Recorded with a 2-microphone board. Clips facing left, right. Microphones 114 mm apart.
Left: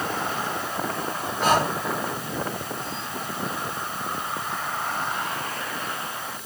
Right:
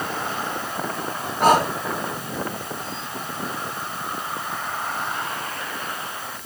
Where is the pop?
No pop in this recording.